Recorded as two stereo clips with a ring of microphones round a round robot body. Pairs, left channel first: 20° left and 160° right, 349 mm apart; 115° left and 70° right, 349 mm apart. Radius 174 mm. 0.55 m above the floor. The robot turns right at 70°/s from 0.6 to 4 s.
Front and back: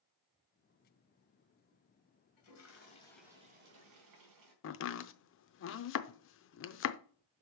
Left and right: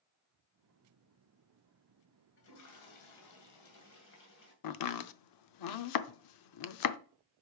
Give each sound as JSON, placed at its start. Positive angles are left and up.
{"t": 2.4, "sound": "a toilet flushing", "azimuth_deg": 55, "distance_m": 2.5}
{"t": 4.6, "sound": "chopping", "azimuth_deg": 80, "distance_m": 0.6}